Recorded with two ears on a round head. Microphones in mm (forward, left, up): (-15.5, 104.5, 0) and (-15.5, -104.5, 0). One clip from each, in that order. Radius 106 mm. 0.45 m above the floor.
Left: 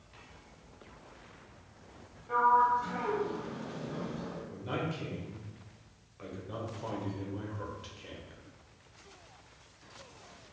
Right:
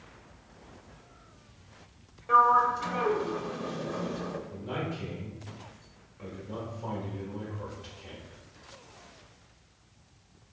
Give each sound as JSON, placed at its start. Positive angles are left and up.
{"t": 2.3, "sound": "a sliding door", "side_deg": -70, "distance_m": 0.6}
{"t": 4.5, "sound": "a man speaking", "side_deg": 25, "distance_m": 1.2}